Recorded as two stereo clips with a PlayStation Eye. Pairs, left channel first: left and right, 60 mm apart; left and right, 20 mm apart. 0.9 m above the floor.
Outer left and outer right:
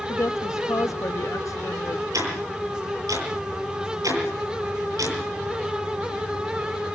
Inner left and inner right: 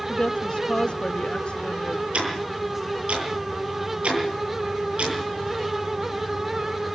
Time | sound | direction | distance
0.1 | a woman speaking | 60° left (ahead or behind) | 1.2 m
2.1 | ticking | 75° right (ahead or behind) | 9.5 m